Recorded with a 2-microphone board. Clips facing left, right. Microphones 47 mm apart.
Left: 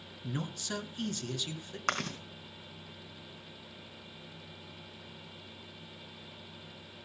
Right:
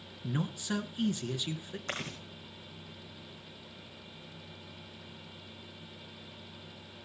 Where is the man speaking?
15° right (ahead or behind), 1.2 m.